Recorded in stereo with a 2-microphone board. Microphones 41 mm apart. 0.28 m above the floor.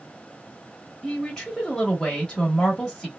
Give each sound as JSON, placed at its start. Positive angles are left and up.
{"t": 1.0, "sound": "a woman speaking", "side_deg": 10, "distance_m": 1.0}